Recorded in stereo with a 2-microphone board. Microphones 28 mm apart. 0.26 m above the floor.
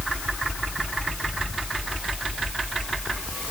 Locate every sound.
Only background noise.